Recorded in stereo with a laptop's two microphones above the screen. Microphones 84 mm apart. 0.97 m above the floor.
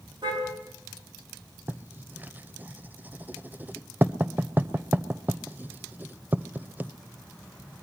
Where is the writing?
25° right (ahead or behind), 1.1 m.